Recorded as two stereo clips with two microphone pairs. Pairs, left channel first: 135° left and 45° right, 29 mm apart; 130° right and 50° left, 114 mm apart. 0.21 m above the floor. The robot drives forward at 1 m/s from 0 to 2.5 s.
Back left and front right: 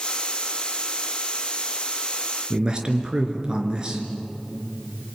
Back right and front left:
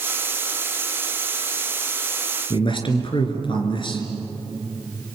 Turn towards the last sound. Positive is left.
turn(degrees=-95)